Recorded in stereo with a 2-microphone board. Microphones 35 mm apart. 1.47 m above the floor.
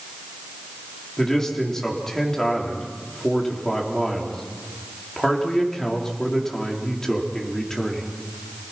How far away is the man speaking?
About 3.5 m.